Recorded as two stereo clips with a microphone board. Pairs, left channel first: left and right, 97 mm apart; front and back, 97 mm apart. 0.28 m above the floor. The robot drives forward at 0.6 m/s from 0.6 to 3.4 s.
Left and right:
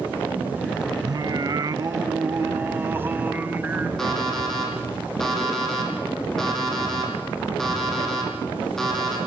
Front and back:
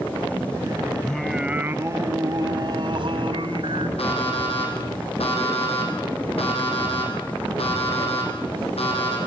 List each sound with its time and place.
1.0 s singing: 75° right, 0.7 m; by 3.9 s 160° right, 1.5 m
4.0 s an alarm clock: 5° left, 6.5 m